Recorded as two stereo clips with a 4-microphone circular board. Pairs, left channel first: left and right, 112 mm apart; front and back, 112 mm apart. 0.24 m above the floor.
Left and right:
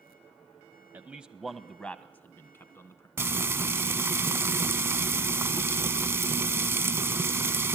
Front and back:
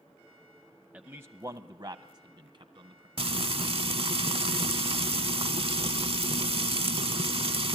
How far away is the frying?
About 0.5 m.